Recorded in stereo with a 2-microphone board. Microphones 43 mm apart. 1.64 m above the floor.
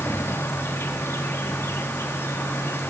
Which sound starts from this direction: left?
An insect, at 0.0 s.